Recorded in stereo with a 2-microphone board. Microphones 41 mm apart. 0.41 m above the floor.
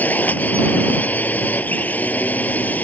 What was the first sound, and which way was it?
A drone, 45° left (ahead or behind).